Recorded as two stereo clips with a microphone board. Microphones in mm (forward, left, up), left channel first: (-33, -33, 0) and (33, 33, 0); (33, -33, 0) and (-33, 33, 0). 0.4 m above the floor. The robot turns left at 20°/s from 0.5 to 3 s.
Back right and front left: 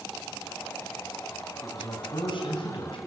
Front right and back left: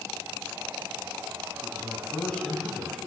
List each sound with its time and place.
1.6 s a man speaking: 105° right, 3 m; by 3.0 s 135° right, 3 m